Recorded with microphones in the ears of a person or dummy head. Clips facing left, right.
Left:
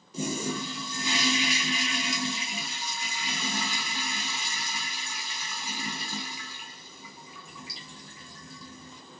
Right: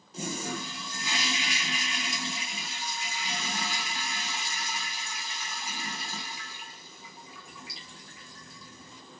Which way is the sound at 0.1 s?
85° left.